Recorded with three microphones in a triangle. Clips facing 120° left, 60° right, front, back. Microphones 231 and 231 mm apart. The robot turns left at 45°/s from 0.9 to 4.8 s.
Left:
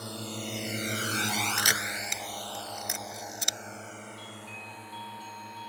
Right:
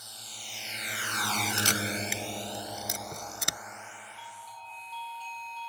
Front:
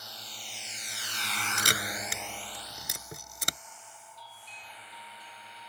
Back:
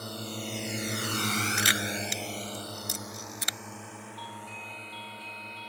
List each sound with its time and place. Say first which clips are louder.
0.0 s a drone: left 18 dB, back 15 dB; 145° left; by 5.7 s 135° left
1.6 s a camera shutter: right 5 dB, back 4 dB; 45° left; by 3.6 s 45° right
4.2 s a doorbell: left 6 dB, back 11 dB; 70° left; by 5.7 s 40° left